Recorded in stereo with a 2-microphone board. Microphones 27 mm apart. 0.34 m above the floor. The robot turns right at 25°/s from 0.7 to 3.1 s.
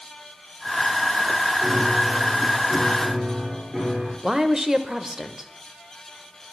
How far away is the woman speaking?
About 0.8 m.